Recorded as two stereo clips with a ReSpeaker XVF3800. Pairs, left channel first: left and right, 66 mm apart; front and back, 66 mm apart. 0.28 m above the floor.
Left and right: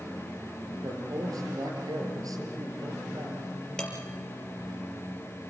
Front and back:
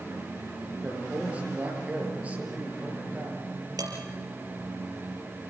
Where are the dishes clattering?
170° left, 4.5 m.